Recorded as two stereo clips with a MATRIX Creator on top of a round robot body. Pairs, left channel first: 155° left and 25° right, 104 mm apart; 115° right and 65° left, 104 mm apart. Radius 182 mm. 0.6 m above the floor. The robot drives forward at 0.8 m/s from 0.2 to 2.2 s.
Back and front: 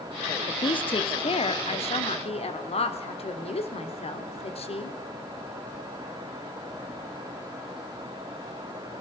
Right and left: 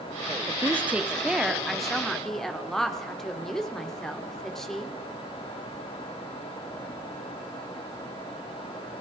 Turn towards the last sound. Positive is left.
turn(degrees=160)